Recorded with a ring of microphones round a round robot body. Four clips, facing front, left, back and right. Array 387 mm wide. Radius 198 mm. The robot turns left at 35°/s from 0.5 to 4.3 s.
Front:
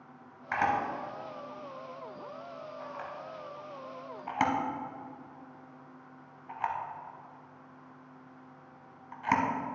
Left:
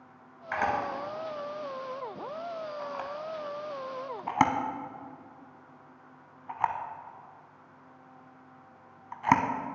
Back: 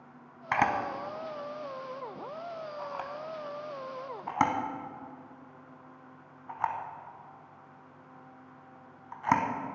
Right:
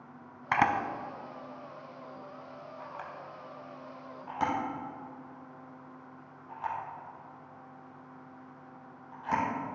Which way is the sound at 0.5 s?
120° right.